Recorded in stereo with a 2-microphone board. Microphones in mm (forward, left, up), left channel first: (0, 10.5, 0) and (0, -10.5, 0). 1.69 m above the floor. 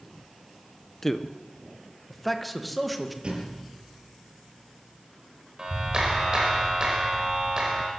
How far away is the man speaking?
About 1.4 m.